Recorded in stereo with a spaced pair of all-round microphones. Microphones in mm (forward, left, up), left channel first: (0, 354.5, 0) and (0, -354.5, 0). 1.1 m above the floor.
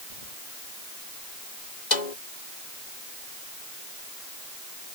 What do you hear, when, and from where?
0.1 s keys jangling: 55° right (ahead or behind)
1.9 s a snare drum: 75° left (ahead or behind)